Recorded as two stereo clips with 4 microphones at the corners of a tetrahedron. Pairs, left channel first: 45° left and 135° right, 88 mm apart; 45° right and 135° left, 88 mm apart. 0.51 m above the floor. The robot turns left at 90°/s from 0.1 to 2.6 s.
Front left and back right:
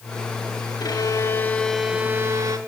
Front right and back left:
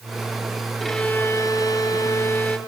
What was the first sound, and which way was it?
A violin, 45° left.